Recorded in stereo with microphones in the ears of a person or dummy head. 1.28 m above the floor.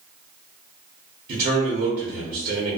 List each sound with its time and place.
1.3 s a man speaking: 45° right (ahead or behind), 0.8 m